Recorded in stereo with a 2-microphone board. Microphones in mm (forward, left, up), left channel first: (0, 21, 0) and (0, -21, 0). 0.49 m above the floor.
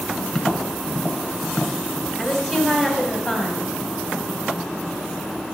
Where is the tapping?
15° left (ahead or behind), 1.0 m.